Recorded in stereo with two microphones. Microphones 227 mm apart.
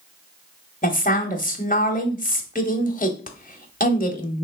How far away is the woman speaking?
About 1.4 m.